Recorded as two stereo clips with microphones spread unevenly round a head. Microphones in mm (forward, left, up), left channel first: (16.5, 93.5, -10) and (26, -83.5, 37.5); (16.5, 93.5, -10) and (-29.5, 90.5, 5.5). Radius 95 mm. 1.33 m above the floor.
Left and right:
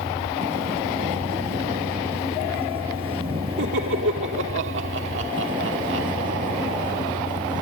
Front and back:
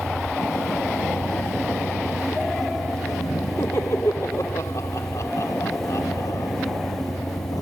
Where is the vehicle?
30° right; by 7.6 s 20° right.